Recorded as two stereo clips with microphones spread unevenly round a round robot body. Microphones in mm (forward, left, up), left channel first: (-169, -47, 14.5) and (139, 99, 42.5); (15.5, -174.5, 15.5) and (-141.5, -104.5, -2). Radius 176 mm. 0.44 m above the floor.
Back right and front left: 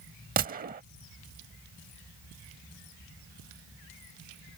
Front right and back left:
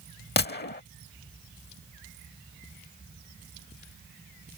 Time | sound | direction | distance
0.4 | a gunshot | 40° right | ?